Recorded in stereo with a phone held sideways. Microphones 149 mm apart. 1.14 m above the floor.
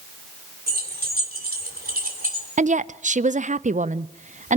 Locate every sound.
0.7 s keys jangling: 85° right, 3.5 m; by 2.5 s 60° right (ahead or behind), 3 m
2.6 s a woman speaking: 55° right (ahead or behind), 0.6 m